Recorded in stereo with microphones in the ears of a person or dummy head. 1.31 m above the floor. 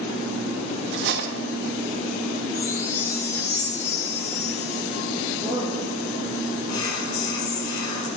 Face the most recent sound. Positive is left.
turn(degrees=25)  # may be behind; listen again after turning